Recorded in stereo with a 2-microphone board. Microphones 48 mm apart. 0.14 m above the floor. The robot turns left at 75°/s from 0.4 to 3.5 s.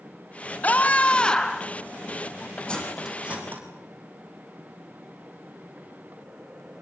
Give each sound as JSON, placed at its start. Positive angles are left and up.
{"t": 0.6, "sound": "a scream", "azimuth_deg": 90, "distance_m": 1.7}
{"t": 2.7, "sound": "cutlery clinking", "side_deg": 20, "distance_m": 4.0}